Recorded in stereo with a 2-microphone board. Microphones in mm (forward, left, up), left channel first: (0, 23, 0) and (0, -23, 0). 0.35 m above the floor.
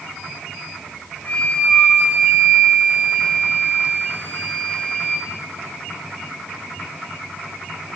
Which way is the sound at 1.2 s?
40° left (ahead or behind).